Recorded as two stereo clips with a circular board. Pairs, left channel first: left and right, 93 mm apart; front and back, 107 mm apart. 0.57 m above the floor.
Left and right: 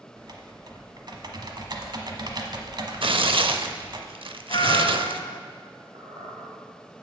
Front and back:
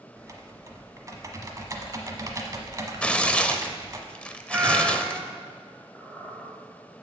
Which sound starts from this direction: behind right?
Typing on a keyboard, at 0.2 s.